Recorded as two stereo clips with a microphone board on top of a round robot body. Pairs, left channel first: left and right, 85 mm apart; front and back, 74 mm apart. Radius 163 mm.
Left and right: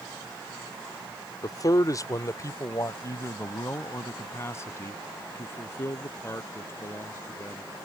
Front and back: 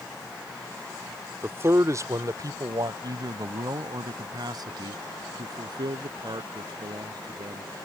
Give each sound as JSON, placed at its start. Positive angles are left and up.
{"t": 1.4, "sound": "a man speaking", "azimuth_deg": 125}